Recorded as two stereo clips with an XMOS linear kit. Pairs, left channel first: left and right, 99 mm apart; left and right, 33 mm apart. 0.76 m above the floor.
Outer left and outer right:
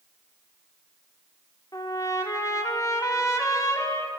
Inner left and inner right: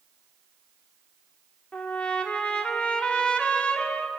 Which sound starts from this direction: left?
A trumpet, at 1.7 s.